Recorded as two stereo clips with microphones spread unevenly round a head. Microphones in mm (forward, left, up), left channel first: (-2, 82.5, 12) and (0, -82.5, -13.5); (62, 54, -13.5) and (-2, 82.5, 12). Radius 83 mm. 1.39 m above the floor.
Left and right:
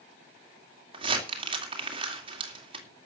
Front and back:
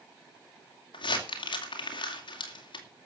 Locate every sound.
0.9 s crumpling: 30° right, 2.5 m